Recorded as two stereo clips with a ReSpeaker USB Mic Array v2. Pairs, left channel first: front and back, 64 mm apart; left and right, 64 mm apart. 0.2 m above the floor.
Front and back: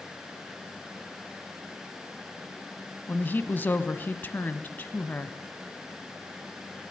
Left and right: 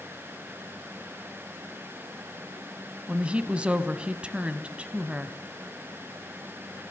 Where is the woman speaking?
30° right, 1.2 m.